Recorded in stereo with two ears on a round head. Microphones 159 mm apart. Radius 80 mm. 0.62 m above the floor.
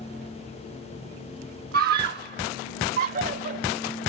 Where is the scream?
50° right (ahead or behind); by 4.0 s 45° right (ahead or behind).